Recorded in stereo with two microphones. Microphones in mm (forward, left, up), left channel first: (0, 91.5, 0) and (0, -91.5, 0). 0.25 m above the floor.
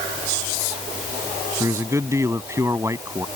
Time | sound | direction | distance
1.6 | a man speaking | 15° right (ahead or behind) | ?